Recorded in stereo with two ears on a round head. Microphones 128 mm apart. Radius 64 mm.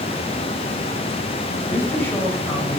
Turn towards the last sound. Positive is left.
turn(degrees=15)  # may be behind; listen again after turning